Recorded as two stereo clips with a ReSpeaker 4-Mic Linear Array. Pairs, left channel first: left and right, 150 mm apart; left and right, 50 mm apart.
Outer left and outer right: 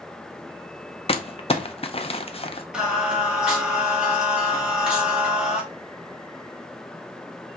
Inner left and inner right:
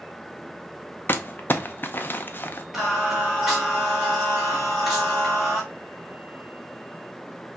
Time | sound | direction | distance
1.1 | crumpling | 40° left (ahead or behind) | 0.5 m
2.7 | singing | 5° right (ahead or behind) | 1.6 m